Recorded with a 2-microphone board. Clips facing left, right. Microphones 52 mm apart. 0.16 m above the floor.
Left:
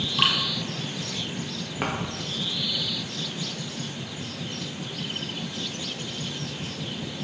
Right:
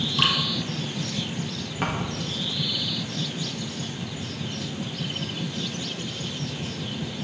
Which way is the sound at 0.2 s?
5° left (ahead or behind).